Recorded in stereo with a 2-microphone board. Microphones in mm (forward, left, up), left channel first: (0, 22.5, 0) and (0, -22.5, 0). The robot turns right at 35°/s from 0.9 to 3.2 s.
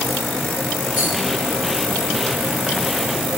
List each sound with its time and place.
0.9 s a rattle: centre (ahead or behind), 2.5 m; by 1.1 s 5° left (ahead or behind), 2.5 m